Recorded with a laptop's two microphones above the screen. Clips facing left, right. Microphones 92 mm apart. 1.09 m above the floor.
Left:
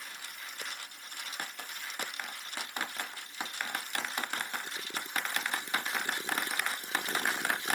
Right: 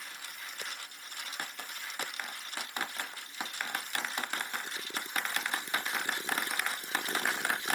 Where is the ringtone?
No ringtone in this recording.